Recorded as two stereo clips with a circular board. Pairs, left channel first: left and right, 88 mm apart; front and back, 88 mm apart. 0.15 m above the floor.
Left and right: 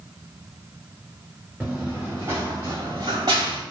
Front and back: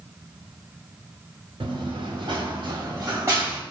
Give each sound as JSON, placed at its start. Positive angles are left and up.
{"t": 1.6, "sound": "running footsteps", "azimuth_deg": -165, "distance_m": 1.2}